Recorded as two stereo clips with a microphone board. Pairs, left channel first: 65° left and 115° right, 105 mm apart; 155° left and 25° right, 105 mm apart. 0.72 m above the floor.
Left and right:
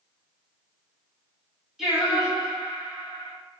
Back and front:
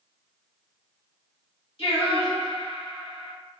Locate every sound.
1.8 s singing: 165° left, 1.2 m